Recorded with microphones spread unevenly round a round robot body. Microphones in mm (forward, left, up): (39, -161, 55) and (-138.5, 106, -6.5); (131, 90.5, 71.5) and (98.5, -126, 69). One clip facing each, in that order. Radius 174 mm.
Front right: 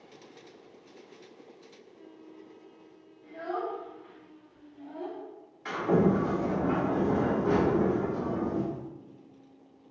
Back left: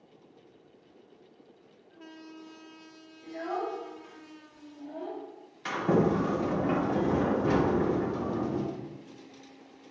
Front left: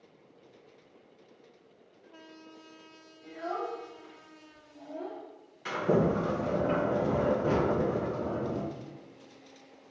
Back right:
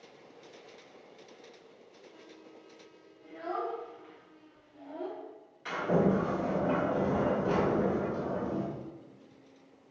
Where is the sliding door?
120° left, 1.6 m.